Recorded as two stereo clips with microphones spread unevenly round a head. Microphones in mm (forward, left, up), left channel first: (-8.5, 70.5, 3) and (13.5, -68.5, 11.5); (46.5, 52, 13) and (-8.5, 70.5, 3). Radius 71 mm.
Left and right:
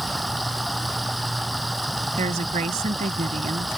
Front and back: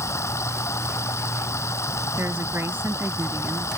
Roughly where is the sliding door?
No sliding door in this recording.